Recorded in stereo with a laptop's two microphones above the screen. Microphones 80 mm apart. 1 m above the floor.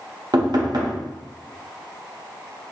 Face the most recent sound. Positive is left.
turn(degrees=-60)  # may be behind; listen again after turning